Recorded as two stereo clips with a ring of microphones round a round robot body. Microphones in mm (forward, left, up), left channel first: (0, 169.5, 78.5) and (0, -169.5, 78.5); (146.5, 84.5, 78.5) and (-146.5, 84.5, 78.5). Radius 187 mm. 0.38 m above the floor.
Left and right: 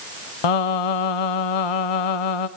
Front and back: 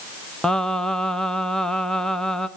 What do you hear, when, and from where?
0.4 s singing: 90° left, 1.0 m